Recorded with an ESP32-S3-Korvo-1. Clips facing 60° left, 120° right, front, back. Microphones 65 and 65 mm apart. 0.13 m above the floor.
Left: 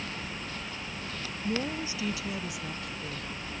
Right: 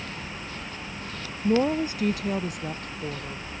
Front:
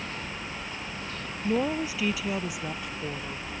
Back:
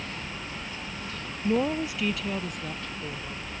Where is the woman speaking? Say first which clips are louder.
Right 10 dB, back 1 dB; 95° right; by 3.4 s 75° right.